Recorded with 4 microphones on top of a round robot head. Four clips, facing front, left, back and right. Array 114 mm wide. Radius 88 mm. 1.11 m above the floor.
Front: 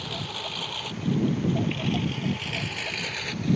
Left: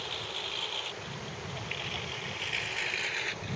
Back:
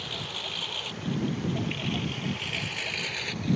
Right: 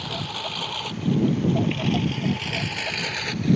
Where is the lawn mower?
80° right; by 3.6 s 90° right.